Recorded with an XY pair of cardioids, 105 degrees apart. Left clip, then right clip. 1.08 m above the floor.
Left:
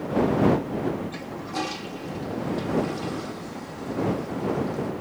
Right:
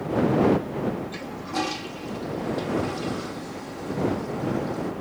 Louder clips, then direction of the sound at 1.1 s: Right 2 dB; 15° right.